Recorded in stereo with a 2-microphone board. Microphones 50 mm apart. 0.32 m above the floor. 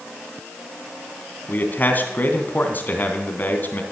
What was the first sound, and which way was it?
A man speaking, 35° left (ahead or behind).